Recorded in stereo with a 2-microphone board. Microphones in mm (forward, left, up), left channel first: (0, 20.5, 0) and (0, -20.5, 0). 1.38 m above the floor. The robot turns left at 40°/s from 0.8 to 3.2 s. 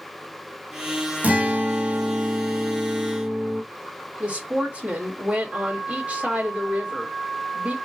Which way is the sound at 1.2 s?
40° right.